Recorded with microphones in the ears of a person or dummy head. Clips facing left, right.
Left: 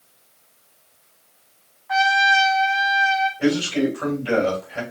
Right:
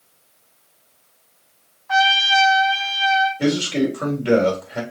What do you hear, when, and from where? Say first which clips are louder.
1.9 s a trumpet: right 1 dB; 50° right (ahead or behind), 3 m
3.4 s a man speaking: left 1 dB; 75° right (ahead or behind), 3 m